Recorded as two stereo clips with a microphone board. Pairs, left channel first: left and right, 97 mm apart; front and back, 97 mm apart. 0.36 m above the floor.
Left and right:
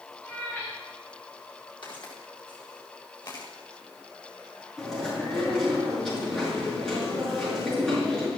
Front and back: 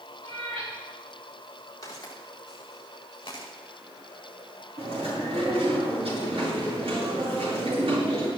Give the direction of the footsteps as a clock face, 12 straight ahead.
10 o'clock.